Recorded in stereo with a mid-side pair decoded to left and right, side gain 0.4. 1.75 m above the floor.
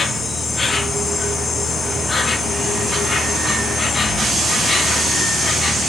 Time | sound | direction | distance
0.0 | an insect | 40° left | 0.8 m